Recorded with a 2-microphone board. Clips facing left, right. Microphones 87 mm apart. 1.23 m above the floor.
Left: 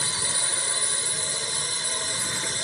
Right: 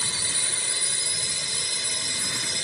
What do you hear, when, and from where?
0.0 s a drone: 35° left (ahead or behind)